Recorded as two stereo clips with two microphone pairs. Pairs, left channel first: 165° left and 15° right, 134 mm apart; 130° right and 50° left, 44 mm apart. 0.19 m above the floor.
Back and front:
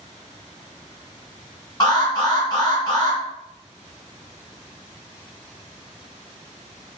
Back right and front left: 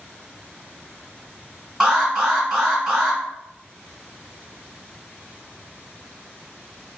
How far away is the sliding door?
I don't hear a sliding door.